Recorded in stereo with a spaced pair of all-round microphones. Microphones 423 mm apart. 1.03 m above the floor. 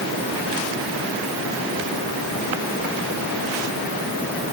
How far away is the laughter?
No laughter in this recording.